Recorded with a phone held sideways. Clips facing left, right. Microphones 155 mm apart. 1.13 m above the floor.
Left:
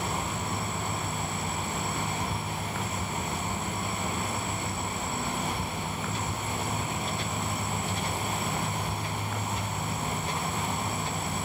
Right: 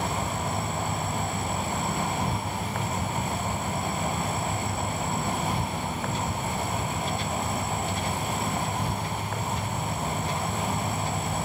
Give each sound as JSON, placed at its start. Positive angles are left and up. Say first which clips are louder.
{"t": 0.0, "sound": "an insect", "louder": "right 3 dB", "side_deg": -60, "distance_m": 1.8}